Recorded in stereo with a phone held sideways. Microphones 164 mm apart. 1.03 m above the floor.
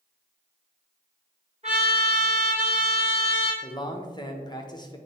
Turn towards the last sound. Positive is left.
turn(degrees=25)  # may be behind; listen again after turning